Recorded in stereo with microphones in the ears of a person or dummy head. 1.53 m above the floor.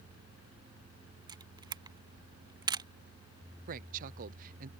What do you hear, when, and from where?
1.3 s a camera shutter: 20° right (ahead or behind)
3.7 s a woman speaking: 45° right (ahead or behind)